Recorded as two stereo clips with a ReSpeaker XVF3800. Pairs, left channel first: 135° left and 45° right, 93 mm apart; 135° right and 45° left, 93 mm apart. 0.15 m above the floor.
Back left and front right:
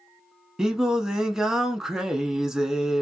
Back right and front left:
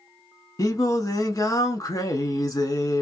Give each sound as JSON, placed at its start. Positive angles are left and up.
{"t": 0.6, "sound": "singing", "azimuth_deg": -125, "distance_m": 0.5}